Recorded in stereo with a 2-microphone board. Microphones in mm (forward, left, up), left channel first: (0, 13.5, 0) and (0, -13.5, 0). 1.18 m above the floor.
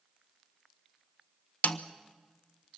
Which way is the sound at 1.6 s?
70° left (ahead or behind).